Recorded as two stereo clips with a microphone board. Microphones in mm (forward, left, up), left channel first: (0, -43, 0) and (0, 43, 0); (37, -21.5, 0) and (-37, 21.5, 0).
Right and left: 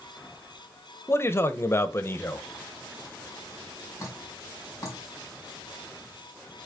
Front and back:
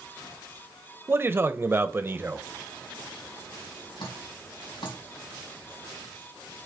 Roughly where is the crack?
No crack in this recording.